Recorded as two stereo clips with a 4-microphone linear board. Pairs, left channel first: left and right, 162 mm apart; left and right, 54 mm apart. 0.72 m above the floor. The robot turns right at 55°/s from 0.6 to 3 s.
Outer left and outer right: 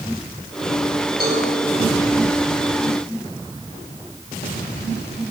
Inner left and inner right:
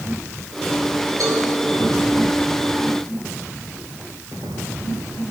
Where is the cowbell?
75° right (ahead or behind), 3.5 m; by 1.5 s 80° right, 3.5 m.